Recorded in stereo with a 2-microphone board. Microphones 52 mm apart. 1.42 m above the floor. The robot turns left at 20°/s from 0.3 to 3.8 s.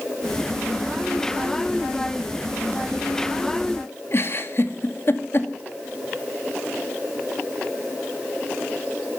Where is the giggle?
50° left (ahead or behind), 2 m.